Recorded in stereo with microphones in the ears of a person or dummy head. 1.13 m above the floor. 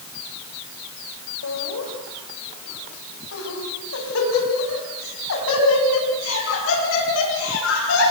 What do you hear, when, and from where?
1.4 s laughter: 90° left, 5.5 m; by 8.1 s 75° left (ahead or behind), 11.5 m